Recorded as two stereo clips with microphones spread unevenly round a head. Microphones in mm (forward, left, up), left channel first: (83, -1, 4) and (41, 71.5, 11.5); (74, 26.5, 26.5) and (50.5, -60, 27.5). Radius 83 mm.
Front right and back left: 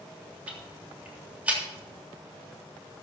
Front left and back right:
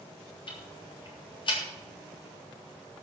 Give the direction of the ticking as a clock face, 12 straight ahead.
10 o'clock.